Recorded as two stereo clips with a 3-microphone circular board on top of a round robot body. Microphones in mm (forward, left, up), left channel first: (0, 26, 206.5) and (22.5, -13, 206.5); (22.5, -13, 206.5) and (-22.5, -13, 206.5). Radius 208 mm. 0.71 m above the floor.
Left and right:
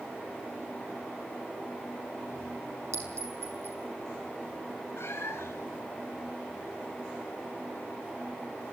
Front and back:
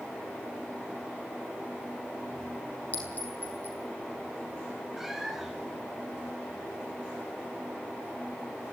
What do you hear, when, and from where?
2.9 s a clink: 50° right, 6.5 m
5.0 s a cat meowing: 95° left, 1.5 m